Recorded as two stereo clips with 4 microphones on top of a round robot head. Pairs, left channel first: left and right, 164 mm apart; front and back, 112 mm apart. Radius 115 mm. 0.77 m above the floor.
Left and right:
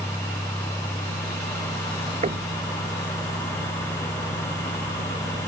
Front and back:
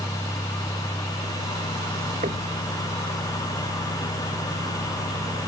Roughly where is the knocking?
Behind right.